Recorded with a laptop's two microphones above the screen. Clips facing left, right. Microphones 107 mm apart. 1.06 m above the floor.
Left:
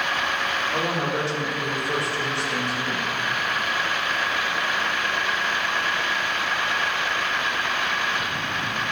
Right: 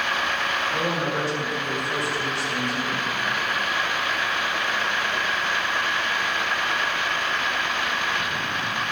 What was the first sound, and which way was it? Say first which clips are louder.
A woman speaking: left 1 dB; 65° left (ahead or behind).